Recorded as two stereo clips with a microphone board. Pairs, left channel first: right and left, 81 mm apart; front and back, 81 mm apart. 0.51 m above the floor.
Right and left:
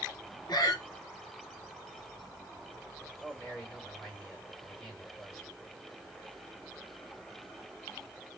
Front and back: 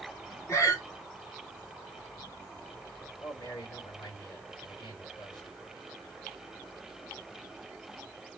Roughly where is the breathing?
Ahead right.